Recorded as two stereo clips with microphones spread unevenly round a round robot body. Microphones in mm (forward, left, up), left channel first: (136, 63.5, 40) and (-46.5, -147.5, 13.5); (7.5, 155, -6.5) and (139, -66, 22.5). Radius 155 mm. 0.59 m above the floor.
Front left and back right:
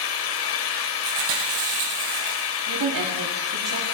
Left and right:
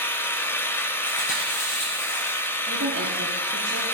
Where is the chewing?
170° right, 4 m.